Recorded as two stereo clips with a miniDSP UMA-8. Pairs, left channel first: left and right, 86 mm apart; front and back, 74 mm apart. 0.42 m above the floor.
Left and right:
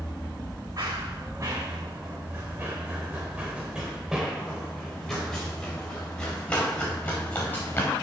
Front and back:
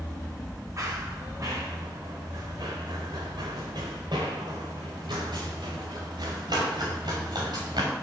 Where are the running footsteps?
135° right, 2.5 m; by 7.9 s 155° left, 3.5 m.